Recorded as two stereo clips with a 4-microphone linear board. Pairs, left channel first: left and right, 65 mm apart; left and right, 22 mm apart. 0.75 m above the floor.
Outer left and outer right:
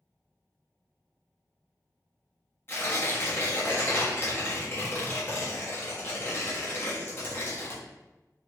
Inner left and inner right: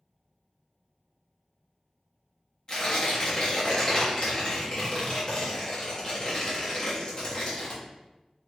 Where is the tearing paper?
35° left (ahead or behind), 1.1 m.